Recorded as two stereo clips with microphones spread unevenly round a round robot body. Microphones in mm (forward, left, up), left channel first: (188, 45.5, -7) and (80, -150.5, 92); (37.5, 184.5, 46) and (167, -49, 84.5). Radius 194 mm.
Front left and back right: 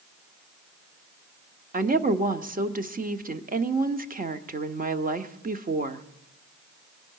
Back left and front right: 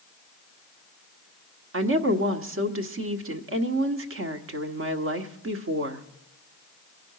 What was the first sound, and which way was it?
A woman speaking, 55° right.